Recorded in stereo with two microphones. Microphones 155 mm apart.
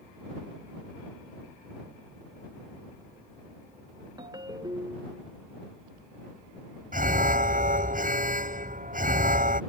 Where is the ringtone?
30° right (ahead or behind).